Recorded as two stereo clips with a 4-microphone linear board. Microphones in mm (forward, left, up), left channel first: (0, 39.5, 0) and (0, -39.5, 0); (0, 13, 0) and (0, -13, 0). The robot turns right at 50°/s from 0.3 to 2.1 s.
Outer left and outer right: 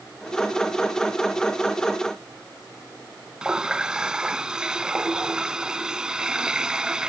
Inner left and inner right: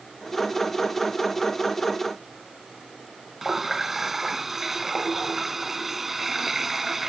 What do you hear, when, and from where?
3.4 s a running tap: 10° right (ahead or behind)